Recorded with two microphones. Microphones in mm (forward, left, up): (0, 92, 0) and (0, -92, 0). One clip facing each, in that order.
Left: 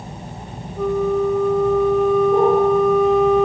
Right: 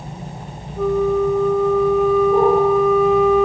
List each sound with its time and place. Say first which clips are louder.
0.8 s a flute: right 2 dB; centre (ahead or behind), 1.8 m